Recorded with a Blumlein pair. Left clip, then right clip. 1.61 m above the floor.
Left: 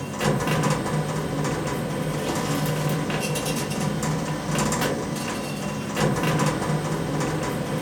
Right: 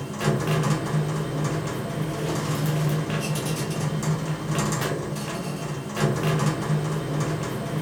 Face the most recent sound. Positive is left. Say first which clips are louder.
# left 2 dB
turn(degrees=10)